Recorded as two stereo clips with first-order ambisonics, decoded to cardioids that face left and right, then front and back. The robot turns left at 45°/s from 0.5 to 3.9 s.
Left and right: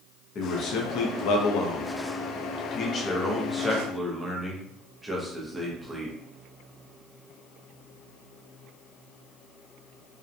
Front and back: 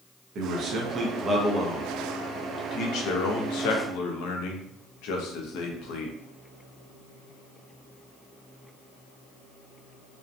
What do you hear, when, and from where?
0.3 s a man speaking: 140° left, 0.5 m; by 6.2 s 10° right, 0.5 m